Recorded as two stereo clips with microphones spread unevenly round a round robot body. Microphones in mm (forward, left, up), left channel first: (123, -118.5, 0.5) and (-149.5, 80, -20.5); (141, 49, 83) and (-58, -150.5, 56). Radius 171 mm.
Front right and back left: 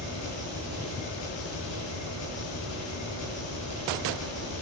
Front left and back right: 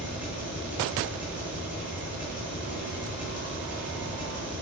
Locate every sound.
0.0 s an engine running: 50° right, 10 m